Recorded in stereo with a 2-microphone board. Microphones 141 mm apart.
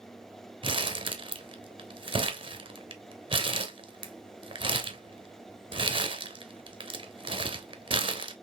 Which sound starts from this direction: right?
Crumpling, at 0.6 s.